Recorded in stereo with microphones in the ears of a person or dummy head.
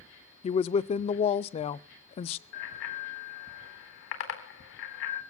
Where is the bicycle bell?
75° left (ahead or behind), 4 m.